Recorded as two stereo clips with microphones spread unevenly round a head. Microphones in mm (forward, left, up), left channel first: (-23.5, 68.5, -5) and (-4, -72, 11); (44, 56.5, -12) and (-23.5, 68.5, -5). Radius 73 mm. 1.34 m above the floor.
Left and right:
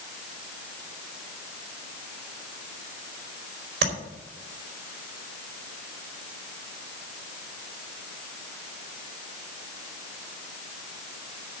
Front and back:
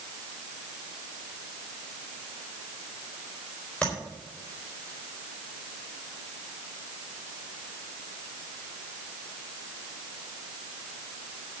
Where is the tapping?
95° right, 4.5 m.